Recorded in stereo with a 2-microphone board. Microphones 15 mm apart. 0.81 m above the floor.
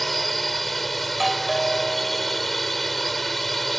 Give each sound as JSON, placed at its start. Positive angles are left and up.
{"t": 0.0, "sound": "a drone", "side_deg": 10}
{"t": 1.1, "sound": "a doorbell", "side_deg": -5}